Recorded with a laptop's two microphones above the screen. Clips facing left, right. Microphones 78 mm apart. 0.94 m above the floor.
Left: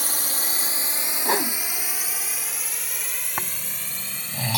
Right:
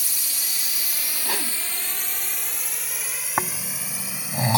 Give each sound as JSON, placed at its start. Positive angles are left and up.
{"t": 0.0, "sound": "a drone", "side_deg": 55}
{"t": 1.2, "sound": "a whoosh", "side_deg": 30}
{"t": 3.4, "sound": "snoring", "side_deg": -25}